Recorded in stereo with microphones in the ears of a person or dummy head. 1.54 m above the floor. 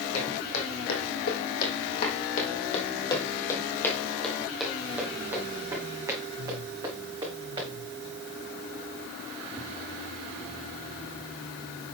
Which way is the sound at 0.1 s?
65° left (ahead or behind).